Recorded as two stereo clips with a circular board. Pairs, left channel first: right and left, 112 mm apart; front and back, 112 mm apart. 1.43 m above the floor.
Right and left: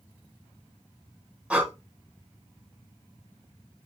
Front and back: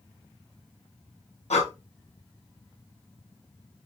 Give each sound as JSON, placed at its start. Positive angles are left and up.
{"t": 1.5, "sound": "breathing", "azimuth_deg": 10, "distance_m": 1.0}